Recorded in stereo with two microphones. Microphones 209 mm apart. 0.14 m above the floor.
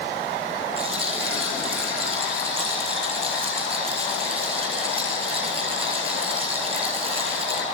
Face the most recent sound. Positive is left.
turn(degrees=-25)  # may be behind; listen again after turning